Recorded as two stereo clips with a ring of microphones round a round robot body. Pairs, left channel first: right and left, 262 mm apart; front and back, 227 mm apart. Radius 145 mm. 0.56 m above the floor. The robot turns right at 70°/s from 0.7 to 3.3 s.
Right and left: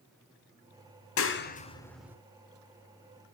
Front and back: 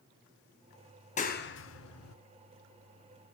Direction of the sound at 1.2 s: 60° right.